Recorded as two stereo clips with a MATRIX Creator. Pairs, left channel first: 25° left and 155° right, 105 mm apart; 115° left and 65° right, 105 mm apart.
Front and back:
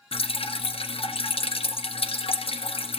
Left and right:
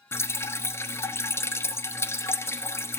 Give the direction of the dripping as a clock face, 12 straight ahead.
10 o'clock.